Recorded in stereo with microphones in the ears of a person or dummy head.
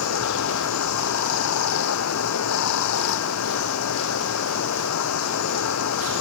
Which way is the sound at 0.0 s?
85° left.